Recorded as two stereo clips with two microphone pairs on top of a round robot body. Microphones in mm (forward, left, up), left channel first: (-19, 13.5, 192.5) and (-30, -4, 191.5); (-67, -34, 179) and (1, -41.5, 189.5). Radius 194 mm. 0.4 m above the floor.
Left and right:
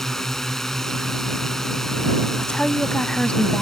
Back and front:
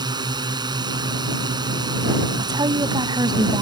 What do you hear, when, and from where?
0.0 s a drone: 15° right
2.4 s a woman speaking: 10° left